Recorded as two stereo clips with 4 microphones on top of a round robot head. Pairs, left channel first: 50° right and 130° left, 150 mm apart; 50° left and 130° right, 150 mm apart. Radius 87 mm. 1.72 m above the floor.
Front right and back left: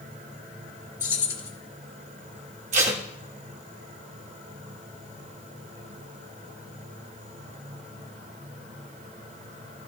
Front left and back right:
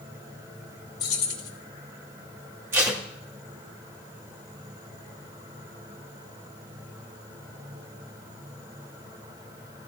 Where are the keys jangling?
25° left, 1.6 m.